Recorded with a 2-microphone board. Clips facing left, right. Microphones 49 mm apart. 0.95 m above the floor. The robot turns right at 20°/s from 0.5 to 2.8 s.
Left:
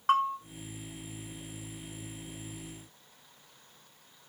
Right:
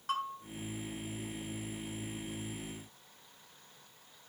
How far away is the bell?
About 1.9 m.